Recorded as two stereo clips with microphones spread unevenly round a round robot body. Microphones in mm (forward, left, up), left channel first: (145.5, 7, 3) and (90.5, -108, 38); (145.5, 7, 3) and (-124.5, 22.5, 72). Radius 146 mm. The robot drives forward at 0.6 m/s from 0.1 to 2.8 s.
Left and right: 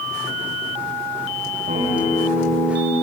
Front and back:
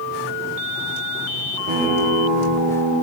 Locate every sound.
1.7 s a guitar: 140° right, 7 m; by 2.9 s 145° right, 7.5 m